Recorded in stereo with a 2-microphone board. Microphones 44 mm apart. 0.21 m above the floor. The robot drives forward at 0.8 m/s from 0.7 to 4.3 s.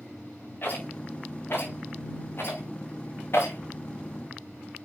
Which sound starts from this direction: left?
A rattle, at 0.6 s.